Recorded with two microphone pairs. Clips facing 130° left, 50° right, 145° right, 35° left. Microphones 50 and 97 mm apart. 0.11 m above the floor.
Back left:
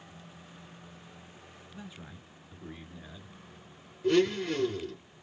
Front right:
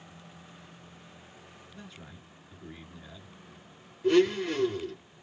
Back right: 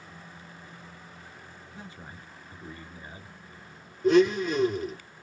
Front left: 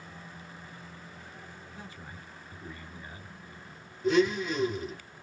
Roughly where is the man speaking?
Behind.